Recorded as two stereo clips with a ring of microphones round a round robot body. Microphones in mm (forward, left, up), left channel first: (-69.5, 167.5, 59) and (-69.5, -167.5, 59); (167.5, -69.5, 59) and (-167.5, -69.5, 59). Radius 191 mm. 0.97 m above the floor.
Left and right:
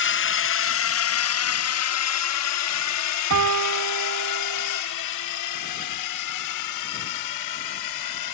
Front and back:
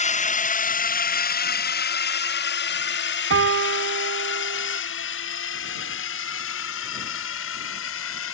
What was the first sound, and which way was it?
A drone, 60° left.